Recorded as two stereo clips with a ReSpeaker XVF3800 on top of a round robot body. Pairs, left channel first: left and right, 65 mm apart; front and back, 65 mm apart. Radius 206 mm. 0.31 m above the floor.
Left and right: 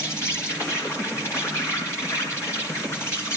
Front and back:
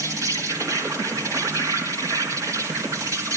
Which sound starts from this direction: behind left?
An insect, at 0.0 s.